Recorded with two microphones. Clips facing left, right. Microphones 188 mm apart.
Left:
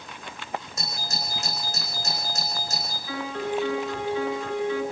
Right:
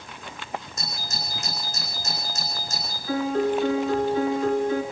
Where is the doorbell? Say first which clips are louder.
Left 1 dB; 75° left (ahead or behind), 9 m.